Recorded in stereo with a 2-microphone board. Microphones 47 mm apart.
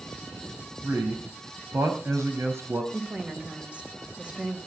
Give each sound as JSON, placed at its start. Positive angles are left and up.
{"t": 0.8, "sound": "a man speaking", "side_deg": -75, "distance_m": 4.5}
{"t": 2.9, "sound": "a woman speaking", "side_deg": -25, "distance_m": 3.0}